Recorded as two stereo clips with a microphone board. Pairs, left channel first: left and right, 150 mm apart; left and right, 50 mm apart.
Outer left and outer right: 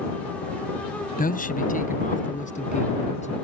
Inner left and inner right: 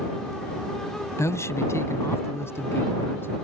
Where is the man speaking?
70° left (ahead or behind); by 3.3 s 50° left (ahead or behind).